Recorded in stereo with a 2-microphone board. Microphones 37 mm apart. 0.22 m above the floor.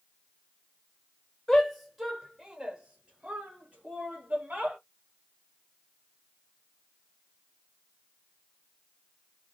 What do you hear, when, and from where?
1.5 s a shout: 10° left (ahead or behind), 1.2 m; by 4.8 s 40° right (ahead or behind), 2.0 m